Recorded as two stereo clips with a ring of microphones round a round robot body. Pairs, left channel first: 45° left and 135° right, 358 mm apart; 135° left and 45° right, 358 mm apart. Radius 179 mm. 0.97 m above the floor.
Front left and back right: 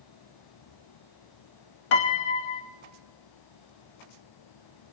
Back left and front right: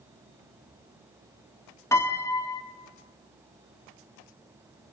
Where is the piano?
55° left, 1.4 m.